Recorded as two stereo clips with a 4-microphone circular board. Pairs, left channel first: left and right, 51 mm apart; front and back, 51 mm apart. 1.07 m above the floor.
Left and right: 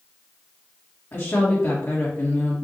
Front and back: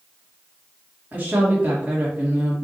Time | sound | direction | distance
1.1 | a woman speaking | 120° left | 1.8 m